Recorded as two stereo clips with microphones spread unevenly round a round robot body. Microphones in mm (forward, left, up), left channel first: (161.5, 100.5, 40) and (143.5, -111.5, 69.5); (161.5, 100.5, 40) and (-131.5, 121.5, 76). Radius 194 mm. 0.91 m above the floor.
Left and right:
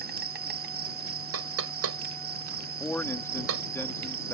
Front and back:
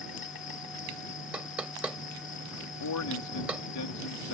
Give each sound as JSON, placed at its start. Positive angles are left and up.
{"t": 0.0, "sound": "an insect", "azimuth_deg": -65}
{"t": 1.3, "sound": "knocking", "azimuth_deg": -95}
{"t": 2.8, "sound": "a man speaking", "azimuth_deg": 5}